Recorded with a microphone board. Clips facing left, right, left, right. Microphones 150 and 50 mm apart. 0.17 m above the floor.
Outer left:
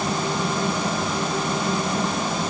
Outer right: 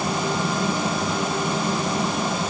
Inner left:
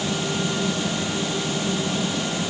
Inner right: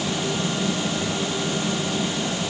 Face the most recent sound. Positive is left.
No sound to turn to.